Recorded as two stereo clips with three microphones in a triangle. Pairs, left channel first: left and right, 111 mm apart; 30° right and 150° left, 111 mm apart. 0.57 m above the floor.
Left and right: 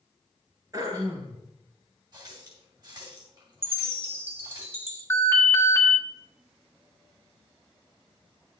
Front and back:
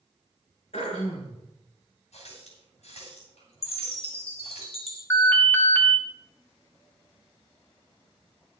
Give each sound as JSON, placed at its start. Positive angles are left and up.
{"t": 0.7, "sound": "throat clearing", "azimuth_deg": -35, "distance_m": 4.0}
{"t": 2.1, "sound": "a running tap", "azimuth_deg": -40, "distance_m": 3.0}
{"t": 3.6, "sound": "a chime", "azimuth_deg": -20, "distance_m": 1.9}
{"t": 5.1, "sound": "an alarm", "azimuth_deg": 35, "distance_m": 1.6}